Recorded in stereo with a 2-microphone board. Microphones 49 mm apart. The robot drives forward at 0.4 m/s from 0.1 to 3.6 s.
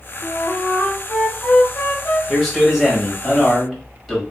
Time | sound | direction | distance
0.2 | a flute | 60° left (ahead or behind) | 0.5 m
2.3 | a man speaking | centre (ahead or behind) | 1.3 m